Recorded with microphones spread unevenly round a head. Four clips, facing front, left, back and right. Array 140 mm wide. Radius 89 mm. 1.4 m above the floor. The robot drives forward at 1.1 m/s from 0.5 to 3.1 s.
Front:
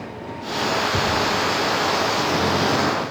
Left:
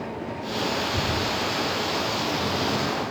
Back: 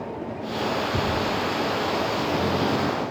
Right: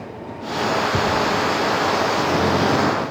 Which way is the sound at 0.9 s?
70° right.